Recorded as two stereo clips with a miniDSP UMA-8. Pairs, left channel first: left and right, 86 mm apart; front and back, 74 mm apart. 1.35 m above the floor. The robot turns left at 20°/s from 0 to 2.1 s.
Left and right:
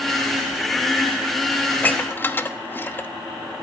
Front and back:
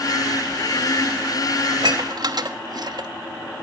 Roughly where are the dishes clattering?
Behind.